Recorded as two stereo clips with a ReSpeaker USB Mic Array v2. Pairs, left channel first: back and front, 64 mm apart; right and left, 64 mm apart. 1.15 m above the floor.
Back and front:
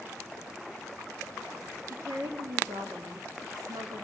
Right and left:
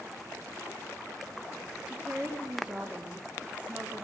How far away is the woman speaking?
About 2 m.